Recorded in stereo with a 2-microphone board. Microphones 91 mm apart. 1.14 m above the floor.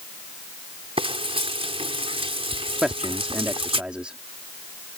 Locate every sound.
1.0 s frying: 80° right
2.8 s a man speaking: 10° right (ahead or behind)